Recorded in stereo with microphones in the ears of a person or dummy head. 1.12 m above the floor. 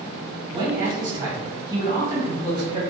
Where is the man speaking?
20° right (ahead or behind), 1.1 m.